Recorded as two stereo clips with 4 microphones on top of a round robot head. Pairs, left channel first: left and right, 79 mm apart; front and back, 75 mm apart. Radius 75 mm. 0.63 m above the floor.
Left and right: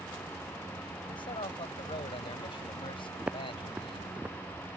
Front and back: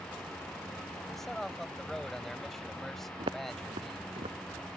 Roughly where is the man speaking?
Left.